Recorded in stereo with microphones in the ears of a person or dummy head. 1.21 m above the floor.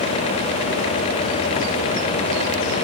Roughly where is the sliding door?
I don't hear a sliding door.